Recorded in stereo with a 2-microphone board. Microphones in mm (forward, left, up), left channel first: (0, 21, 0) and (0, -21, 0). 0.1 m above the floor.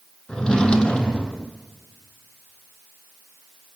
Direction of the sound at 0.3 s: 20° left (ahead or behind).